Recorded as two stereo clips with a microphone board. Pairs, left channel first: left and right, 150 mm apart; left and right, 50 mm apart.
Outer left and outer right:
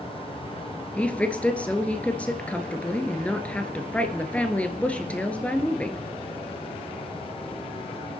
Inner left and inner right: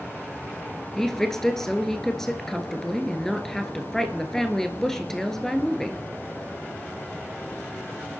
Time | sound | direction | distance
1.0 | a woman speaking | 10° left (ahead or behind) | 1.4 m